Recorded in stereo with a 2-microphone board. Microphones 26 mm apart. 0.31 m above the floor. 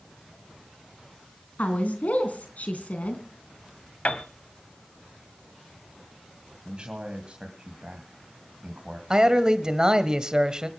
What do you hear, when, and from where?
1.6 s a woman speaking: 70° left (ahead or behind), 3.5 m
4.0 s a piano: 55° left (ahead or behind), 1.7 m
6.7 s a man speaking: 35° right (ahead or behind), 2.5 m
9.1 s a man speaking: 30° right (ahead or behind), 1.6 m